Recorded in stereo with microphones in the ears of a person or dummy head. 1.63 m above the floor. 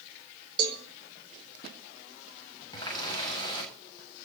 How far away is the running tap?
About 8 m.